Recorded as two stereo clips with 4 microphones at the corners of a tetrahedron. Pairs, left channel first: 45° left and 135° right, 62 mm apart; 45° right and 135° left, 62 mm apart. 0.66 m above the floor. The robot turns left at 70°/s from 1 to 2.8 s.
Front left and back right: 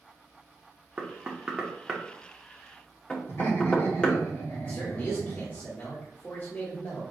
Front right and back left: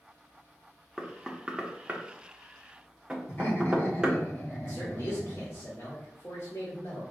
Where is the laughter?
10° left, 2 m.